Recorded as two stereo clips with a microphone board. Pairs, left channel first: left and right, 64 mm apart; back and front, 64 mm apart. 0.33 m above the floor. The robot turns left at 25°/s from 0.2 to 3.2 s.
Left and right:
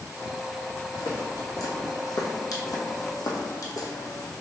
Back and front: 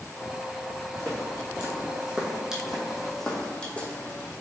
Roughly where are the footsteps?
Left.